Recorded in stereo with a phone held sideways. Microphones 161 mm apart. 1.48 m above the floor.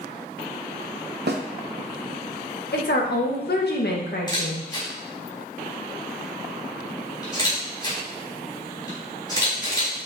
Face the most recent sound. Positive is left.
turn(degrees=25)  # may be behind; listen again after turning